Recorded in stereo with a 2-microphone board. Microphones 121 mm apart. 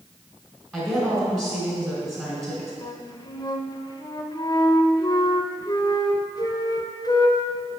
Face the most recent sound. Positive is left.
turn(degrees=30)  # may be behind; listen again after turning